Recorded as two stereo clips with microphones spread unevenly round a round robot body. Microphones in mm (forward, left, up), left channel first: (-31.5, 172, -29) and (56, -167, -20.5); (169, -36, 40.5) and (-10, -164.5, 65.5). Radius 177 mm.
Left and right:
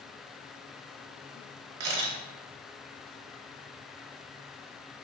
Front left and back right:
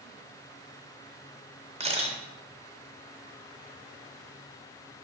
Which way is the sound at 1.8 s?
80° right.